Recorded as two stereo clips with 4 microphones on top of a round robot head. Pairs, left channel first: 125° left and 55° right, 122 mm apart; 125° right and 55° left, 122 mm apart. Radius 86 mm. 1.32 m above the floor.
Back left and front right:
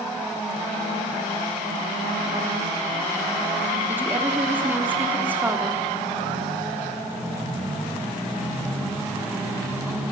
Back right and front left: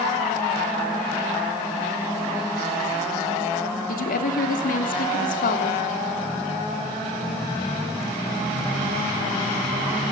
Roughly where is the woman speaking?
Behind right.